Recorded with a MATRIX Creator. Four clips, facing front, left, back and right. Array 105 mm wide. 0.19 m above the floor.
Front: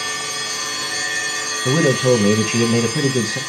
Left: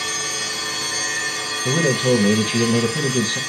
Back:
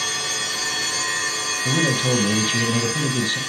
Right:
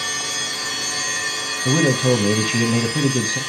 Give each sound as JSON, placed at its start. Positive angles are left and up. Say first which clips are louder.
{"t": 1.6, "sound": "a man speaking", "louder": "right 1 dB, front 7 dB", "azimuth_deg": -30, "distance_m": 1.0}